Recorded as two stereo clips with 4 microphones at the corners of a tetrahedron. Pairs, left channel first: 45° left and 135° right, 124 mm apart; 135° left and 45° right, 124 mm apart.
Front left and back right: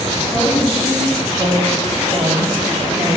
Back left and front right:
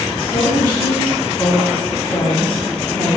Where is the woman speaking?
150° right, 2 m.